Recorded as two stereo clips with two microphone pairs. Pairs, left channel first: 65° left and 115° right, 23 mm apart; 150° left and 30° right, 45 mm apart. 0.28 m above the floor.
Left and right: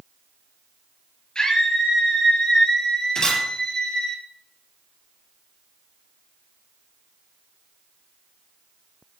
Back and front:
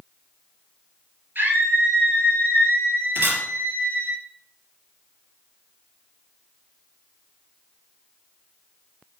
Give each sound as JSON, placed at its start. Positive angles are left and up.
{"t": 1.4, "sound": "a scream", "azimuth_deg": 10, "distance_m": 5.5}
{"t": 3.1, "sound": "a camera shutter", "azimuth_deg": 5, "distance_m": 5.0}